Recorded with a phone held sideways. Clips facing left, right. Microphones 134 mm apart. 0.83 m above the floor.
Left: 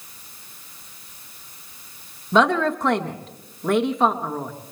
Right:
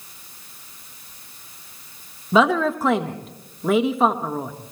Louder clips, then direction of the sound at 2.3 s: Right 1 dB; 5° right (ahead or behind).